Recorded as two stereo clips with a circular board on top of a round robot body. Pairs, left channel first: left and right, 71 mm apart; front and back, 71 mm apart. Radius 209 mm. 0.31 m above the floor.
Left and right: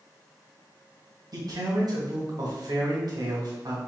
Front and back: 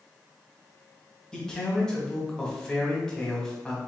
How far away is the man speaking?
About 1.9 m.